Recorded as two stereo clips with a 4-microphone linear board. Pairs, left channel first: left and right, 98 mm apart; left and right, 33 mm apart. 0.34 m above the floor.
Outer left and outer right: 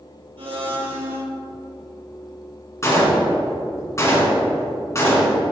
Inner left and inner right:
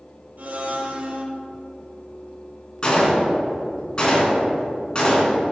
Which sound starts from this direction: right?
A blender, at 0.4 s.